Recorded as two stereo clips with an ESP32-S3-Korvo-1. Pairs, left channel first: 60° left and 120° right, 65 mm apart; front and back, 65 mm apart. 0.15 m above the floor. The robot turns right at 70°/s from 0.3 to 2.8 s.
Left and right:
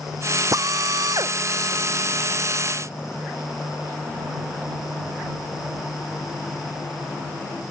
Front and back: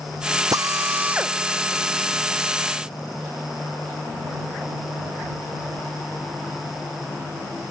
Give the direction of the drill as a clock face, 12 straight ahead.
5 o'clock.